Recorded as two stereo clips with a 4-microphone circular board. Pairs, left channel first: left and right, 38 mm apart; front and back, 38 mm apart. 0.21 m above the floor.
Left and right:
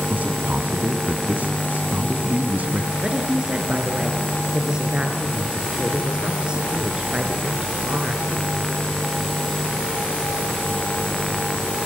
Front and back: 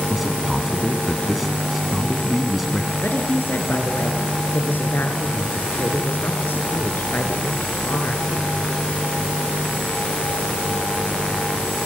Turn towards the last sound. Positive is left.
turn(degrees=-25)